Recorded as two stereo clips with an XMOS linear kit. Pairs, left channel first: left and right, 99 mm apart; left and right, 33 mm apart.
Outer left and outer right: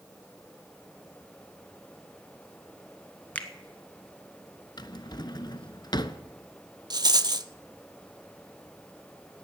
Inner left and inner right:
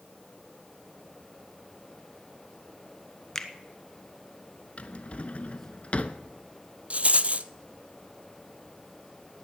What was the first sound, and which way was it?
A finger snap, 15° left (ahead or behind).